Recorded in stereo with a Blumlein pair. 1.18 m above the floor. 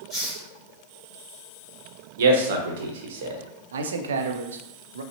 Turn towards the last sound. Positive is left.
turn(degrees=-65)